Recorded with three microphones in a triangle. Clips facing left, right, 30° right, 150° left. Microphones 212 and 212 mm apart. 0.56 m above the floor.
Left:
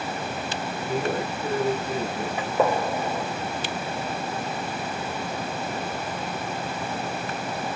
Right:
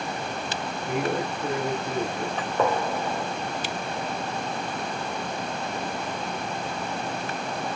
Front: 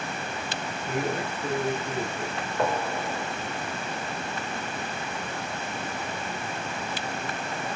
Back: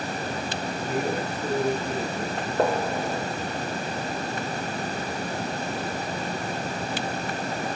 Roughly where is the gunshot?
Behind.